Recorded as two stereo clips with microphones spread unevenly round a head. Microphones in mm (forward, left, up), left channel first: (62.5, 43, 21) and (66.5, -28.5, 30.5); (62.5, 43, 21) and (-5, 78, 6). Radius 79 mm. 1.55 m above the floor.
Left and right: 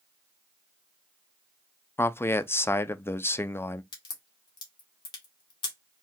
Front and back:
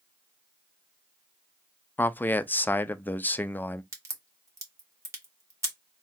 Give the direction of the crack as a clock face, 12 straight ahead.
9 o'clock.